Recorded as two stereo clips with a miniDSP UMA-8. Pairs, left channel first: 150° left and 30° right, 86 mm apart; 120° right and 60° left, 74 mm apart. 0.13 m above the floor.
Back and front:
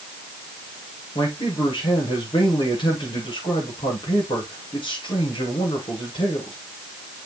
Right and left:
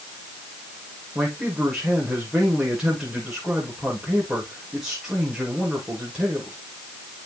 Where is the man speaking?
145° left, 8 m.